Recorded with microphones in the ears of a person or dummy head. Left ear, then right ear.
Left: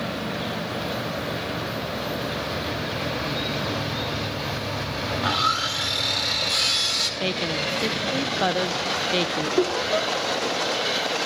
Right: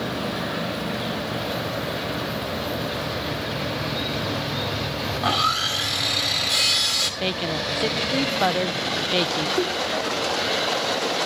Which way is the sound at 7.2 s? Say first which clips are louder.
Even; centre (ahead or behind).